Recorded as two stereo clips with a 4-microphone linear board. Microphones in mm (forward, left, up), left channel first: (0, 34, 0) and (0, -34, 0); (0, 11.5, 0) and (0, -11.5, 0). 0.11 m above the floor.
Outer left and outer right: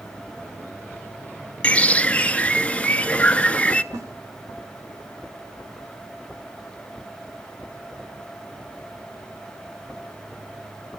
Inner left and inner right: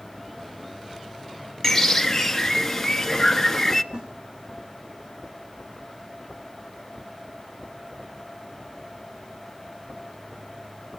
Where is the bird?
20° left (ahead or behind), 0.6 m.